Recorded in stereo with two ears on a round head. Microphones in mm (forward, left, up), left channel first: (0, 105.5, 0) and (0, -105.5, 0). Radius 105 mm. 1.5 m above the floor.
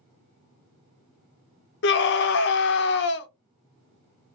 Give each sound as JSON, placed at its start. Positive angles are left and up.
{"t": 1.8, "sound": "a scream", "side_deg": 50, "distance_m": 0.5}